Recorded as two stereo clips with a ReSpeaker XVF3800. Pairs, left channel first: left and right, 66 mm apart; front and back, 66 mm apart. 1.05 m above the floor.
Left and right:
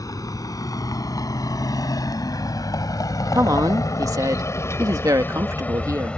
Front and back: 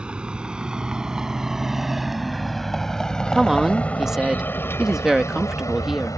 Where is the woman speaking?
100° right.